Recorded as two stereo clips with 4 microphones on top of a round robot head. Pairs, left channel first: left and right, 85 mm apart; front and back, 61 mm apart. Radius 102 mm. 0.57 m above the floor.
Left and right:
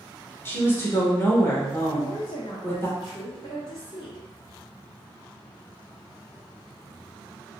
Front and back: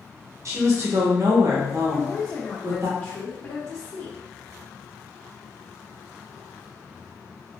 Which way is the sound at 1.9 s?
60° left.